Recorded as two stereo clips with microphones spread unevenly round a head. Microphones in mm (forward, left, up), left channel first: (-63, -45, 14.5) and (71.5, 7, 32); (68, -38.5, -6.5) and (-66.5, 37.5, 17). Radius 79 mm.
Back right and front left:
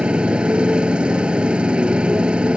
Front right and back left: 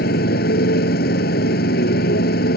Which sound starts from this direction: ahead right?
A motorcycle, at 0.0 s.